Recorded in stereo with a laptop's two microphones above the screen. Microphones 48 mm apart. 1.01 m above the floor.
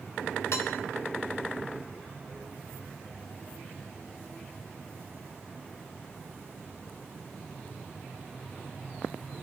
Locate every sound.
0.5 s dishes clattering: 75° left (ahead or behind), 1.7 m